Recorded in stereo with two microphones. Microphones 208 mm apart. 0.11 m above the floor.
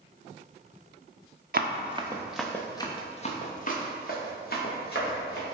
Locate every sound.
1.5 s running footsteps: 50° right (ahead or behind), 0.6 m; by 5.5 s 55° left (ahead or behind), 2 m